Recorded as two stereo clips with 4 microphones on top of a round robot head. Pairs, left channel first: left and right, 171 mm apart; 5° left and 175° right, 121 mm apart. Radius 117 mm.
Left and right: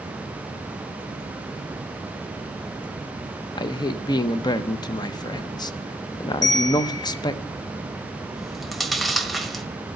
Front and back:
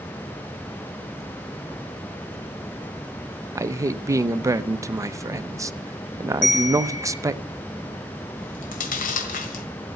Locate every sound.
3.5 s a man speaking: 140° left, 0.8 m
6.4 s a bell: 25° left, 4 m
8.4 s chewing: straight ahead, 1.4 m